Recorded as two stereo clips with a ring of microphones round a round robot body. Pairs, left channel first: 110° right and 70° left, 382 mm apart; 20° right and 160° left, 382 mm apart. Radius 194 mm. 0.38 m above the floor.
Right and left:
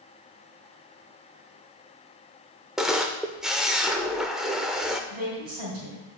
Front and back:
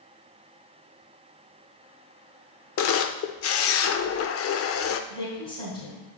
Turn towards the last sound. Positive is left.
turn(degrees=45)